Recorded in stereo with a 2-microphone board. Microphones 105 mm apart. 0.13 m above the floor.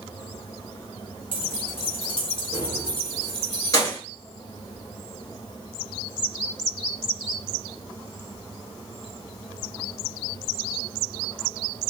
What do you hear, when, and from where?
1.3 s keys jangling: 55° left (ahead or behind), 1.4 m; by 4.0 s 30° left (ahead or behind), 1.4 m